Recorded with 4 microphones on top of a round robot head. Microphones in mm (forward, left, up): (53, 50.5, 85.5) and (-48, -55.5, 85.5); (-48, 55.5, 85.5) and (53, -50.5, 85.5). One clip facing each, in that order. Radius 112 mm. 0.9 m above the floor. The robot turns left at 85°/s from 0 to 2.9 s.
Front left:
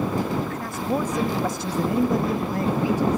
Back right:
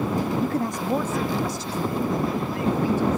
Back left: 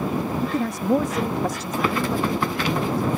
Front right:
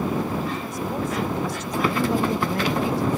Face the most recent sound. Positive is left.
turn(degrees=-30)